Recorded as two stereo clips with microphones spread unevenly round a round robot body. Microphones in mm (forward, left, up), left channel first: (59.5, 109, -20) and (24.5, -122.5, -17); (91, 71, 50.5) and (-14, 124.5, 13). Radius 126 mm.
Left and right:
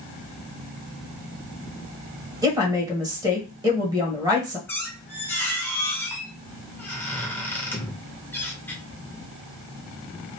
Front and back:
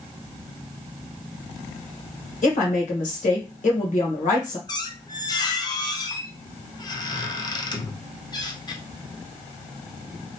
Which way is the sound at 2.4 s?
25° right.